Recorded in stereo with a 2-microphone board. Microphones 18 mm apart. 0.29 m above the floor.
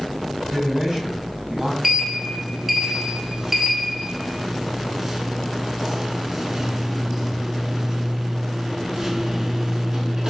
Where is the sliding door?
25° right (ahead or behind), 0.7 m.